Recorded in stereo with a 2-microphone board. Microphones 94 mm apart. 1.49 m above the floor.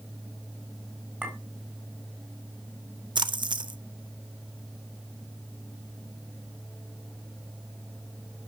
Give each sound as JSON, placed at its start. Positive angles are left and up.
{"t": 1.2, "sound": "a clink", "side_deg": -20, "distance_m": 4.0}
{"t": 3.1, "sound": "a splash", "side_deg": -55, "distance_m": 0.5}